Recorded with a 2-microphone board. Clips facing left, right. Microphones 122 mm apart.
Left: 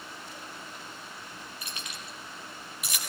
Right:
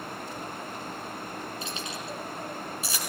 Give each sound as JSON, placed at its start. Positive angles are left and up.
{"t": 1.6, "sound": "keys jangling", "side_deg": -25, "distance_m": 8.0}